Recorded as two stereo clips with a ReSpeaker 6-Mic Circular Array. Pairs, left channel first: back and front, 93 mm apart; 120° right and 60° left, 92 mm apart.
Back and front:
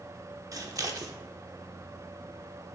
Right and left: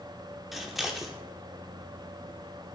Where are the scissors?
25° right, 0.7 m.